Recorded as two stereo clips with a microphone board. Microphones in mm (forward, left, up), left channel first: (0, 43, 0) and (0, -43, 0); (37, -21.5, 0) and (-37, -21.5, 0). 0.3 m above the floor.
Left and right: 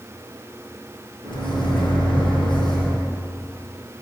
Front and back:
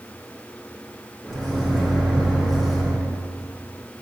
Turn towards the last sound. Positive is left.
turn(degrees=100)